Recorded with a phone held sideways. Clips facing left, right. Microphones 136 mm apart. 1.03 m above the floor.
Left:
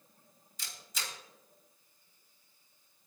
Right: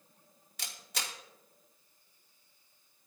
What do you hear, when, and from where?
0.6 s a camera shutter: 60° right (ahead or behind), 2.5 m